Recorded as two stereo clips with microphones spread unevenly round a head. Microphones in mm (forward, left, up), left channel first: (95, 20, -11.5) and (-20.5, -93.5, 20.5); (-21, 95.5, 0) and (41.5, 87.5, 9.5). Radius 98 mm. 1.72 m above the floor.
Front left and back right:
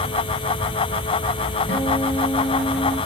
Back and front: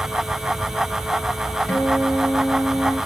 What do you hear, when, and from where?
1.7 s a guitar: 115° left, 6.5 m